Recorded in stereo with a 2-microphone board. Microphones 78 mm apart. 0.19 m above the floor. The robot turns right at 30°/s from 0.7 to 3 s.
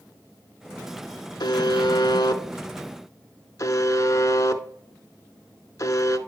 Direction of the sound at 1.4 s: 65° left (ahead or behind).